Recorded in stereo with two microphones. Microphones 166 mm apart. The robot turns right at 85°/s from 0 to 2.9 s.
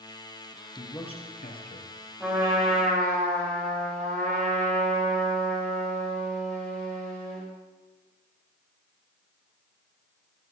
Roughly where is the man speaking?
Ahead.